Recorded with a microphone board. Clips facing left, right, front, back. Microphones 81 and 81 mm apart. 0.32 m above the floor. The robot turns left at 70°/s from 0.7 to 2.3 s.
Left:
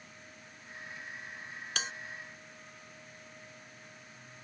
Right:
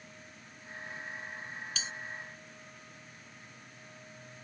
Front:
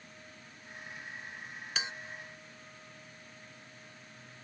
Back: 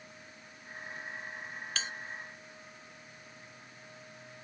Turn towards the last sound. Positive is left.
turn(degrees=40)